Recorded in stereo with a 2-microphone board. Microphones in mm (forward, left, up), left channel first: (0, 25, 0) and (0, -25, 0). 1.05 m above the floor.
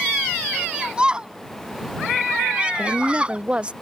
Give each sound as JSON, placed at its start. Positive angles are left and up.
{"t": 0.5, "sound": "a shout", "side_deg": -20}
{"t": 2.8, "sound": "a woman speaking", "side_deg": -20}